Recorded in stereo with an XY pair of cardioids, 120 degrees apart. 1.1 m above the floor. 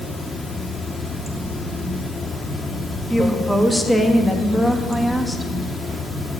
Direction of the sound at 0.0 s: 25° left.